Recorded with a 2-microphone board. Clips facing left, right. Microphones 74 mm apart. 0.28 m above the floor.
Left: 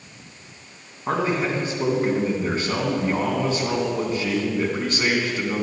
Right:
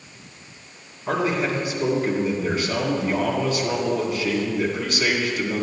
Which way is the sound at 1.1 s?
30° left (ahead or behind).